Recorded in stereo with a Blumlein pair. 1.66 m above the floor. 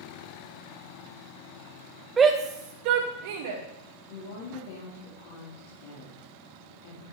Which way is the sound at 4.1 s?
60° left.